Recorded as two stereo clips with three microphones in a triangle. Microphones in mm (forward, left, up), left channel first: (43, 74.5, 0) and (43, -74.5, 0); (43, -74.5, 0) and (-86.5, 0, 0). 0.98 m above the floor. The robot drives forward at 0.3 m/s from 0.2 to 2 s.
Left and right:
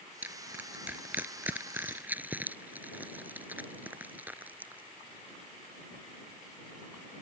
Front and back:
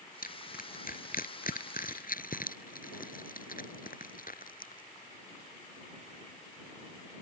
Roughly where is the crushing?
Ahead.